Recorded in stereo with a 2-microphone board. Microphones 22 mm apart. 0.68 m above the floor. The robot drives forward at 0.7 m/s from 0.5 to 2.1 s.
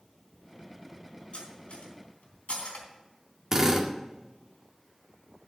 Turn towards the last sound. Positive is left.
turn(degrees=-20)  # may be behind; listen again after turning